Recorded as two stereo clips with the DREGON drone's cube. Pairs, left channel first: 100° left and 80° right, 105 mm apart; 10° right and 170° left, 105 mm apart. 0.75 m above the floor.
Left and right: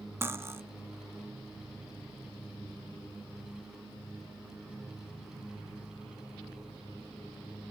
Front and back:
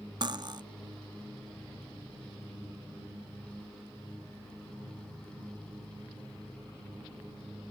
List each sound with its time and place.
0.2 s cutlery clinking: 145° right, 0.6 m